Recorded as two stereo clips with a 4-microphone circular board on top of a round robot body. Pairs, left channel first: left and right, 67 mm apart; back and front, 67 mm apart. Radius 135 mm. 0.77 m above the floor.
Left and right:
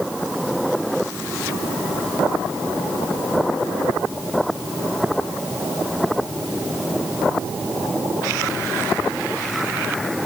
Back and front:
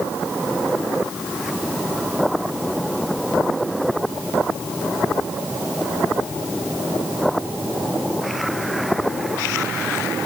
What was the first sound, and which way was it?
Only background noise.